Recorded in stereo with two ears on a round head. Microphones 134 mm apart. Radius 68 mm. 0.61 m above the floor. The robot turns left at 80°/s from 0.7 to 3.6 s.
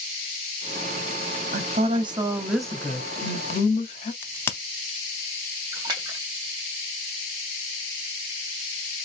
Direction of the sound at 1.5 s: 95° right.